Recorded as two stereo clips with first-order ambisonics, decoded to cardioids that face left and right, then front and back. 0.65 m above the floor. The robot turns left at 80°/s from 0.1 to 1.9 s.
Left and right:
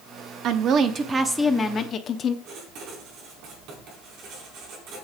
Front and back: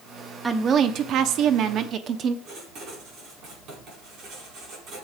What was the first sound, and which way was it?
A woman speaking, 105° right.